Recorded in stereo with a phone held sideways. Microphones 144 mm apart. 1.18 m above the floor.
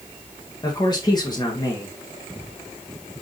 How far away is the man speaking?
About 1.6 m.